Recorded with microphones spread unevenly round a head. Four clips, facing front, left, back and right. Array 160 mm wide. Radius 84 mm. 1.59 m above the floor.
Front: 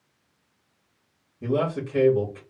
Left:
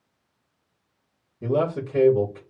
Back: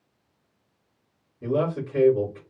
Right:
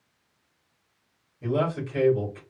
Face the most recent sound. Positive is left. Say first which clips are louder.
# left 3 dB, even
turn(degrees=85)